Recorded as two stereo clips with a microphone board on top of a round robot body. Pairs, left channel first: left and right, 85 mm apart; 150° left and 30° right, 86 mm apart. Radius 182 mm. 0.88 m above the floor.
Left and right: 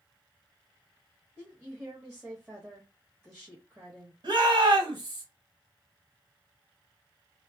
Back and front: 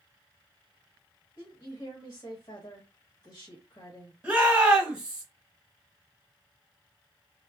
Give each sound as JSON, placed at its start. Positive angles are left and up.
{"t": 1.4, "sound": "a woman speaking", "azimuth_deg": -170, "distance_m": 1.2}
{"t": 4.2, "sound": "a shout", "azimuth_deg": -105, "distance_m": 1.6}